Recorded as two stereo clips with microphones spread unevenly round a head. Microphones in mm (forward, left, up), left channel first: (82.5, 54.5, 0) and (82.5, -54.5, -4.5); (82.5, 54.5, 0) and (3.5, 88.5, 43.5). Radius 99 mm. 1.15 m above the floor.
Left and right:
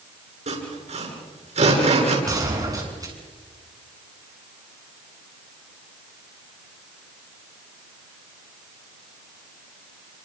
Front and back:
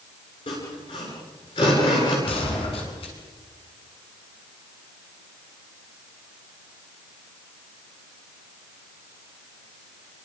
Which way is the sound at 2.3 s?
35° right.